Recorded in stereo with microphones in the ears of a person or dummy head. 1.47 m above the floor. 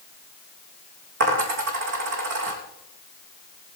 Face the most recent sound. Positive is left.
turn(degrees=-60)  # may be behind; listen again after turning